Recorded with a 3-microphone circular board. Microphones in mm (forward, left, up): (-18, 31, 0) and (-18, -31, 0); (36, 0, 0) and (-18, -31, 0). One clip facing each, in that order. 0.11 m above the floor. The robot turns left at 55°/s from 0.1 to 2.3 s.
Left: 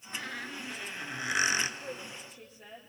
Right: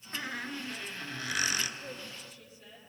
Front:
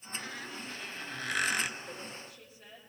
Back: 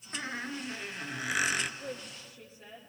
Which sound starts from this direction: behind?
A woman speaking, at 1.8 s.